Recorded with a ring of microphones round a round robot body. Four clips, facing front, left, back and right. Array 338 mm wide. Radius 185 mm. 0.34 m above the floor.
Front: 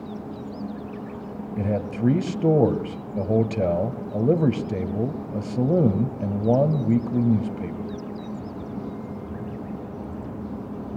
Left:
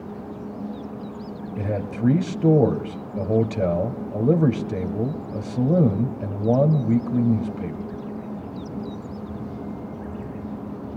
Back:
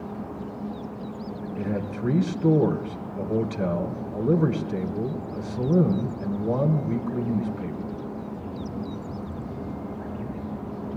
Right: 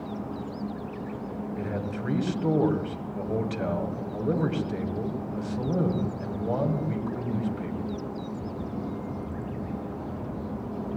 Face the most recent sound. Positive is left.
turn(degrees=40)